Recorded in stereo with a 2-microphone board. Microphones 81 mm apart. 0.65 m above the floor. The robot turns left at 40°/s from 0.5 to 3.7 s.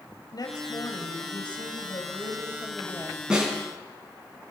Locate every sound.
0.3 s a woman speaking: 120° left, 2.5 m; by 3.2 s 15° left, 2.5 m
3.3 s a snare drum: 10° right (ahead or behind), 6.5 m; by 3.5 s 20° right (ahead or behind), 6.5 m